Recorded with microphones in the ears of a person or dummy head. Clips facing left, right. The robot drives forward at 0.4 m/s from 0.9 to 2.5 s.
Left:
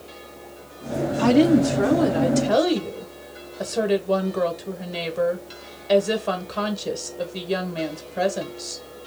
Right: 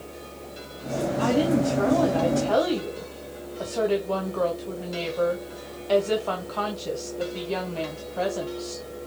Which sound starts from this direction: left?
A woman speaking, at 1.2 s.